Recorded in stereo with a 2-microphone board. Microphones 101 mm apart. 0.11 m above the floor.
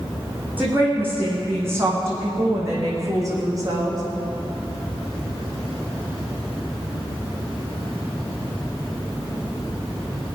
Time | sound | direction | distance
0.6 | a woman speaking | 20° right (ahead or behind) | 6 m